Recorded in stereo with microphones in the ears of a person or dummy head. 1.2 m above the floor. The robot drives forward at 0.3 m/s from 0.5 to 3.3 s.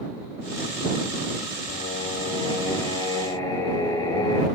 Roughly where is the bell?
I don't hear a bell.